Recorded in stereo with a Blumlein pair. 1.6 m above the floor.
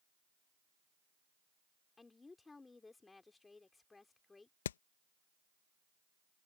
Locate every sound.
2.0 s a woman speaking: 10° left
4.7 s hammering: 60° left